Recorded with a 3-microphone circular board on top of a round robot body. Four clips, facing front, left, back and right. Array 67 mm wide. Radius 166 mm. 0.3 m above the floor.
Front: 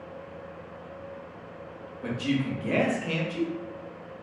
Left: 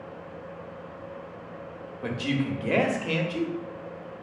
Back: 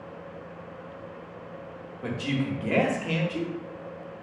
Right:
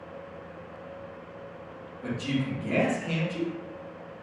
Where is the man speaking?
110° left, 1.2 m.